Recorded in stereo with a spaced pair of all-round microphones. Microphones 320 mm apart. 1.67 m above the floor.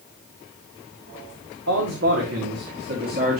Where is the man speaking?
55° right (ahead or behind), 1.9 m; by 3.4 s 25° right (ahead or behind), 2.5 m.